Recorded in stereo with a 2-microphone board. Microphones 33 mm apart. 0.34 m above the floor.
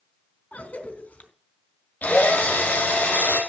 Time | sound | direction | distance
0.5 | a cough | 50° left (ahead or behind) | 3.5 m
2.0 | a drill | 60° left (ahead or behind) | 5.5 m